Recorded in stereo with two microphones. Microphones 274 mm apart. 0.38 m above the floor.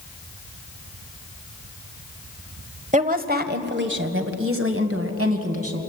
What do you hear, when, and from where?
2.9 s a woman speaking: 30° right (ahead or behind), 1.4 m; by 5.8 s 65° right (ahead or behind), 2.5 m